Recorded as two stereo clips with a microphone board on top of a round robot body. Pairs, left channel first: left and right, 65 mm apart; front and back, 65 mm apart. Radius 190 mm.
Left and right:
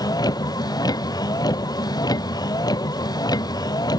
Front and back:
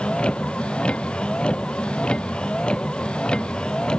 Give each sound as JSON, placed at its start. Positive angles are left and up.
{"t": 0.0, "sound": "a vehicle", "azimuth_deg": 75}